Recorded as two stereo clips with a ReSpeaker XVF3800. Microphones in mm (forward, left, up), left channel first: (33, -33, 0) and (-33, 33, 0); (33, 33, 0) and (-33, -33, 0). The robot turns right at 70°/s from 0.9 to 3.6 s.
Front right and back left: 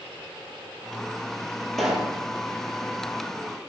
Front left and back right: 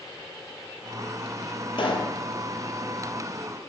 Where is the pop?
40° left, 1.7 m; by 2.1 s 70° left, 1.7 m.